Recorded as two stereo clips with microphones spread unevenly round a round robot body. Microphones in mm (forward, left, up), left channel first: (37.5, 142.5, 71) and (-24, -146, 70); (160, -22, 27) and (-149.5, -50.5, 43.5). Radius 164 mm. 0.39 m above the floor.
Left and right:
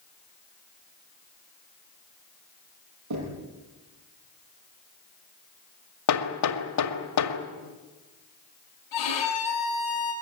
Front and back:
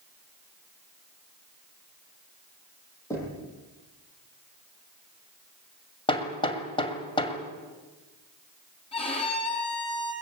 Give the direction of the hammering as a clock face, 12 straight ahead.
9 o'clock.